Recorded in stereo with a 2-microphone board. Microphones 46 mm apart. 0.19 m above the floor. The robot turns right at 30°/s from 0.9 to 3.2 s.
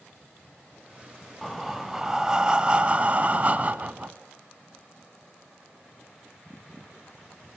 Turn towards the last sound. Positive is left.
turn(degrees=-125)